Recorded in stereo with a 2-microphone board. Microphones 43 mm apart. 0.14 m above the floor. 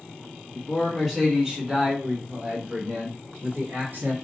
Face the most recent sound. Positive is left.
turn(degrees=-50)  # may be behind; listen again after turning